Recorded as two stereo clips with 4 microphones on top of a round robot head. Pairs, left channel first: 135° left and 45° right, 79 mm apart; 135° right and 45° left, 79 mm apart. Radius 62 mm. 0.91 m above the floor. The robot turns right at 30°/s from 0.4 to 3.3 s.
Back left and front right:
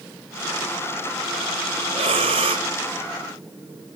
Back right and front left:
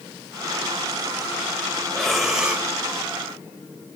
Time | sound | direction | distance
1.9 | breathing | 50° right | 1.0 m